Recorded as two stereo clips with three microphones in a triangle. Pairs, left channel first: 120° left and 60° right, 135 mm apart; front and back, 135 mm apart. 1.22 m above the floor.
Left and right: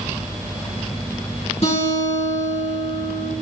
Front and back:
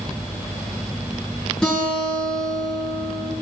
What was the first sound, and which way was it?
A guitar, 85° left.